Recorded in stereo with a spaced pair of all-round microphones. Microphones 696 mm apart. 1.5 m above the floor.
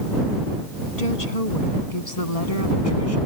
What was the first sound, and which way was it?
A woman speaking, 65° left (ahead or behind).